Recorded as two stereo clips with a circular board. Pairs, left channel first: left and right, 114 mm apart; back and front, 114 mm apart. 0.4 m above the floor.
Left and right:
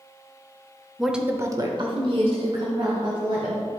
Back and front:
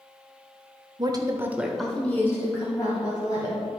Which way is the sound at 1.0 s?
Straight ahead.